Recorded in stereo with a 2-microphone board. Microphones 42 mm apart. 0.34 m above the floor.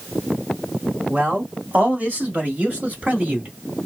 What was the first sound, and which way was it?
A man speaking, 35° right (ahead or behind).